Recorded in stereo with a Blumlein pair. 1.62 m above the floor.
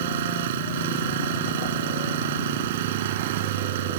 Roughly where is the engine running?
Ahead right.